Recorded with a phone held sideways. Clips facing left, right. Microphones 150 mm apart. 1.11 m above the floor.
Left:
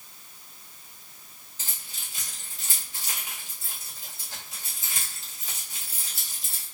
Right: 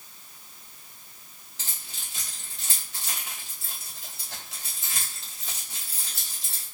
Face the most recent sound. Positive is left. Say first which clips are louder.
# right 1 dB
turn(degrees=-75)  # may be behind; listen again after turning